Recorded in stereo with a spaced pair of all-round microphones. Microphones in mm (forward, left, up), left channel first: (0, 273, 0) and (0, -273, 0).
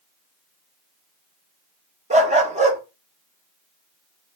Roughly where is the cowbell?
No cowbell in this recording.